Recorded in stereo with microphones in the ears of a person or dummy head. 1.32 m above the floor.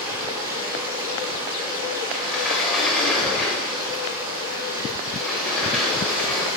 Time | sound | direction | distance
0.0 | running water | 15° right (ahead or behind) | 6 m
2.1 | a sliding door | 5° left (ahead or behind) | 2.5 m